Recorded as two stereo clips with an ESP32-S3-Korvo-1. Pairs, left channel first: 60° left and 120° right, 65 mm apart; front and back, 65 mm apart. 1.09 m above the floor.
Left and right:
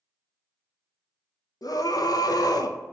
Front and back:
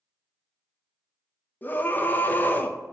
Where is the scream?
60° left, 0.6 m.